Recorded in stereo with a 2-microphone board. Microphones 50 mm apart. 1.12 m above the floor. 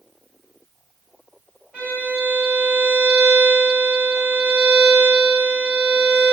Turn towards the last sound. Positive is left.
turn(degrees=-30)  # may be behind; listen again after turning